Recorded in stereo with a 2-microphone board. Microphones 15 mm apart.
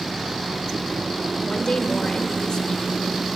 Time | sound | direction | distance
1.4 | a woman speaking | 55° left (ahead or behind) | 1.6 m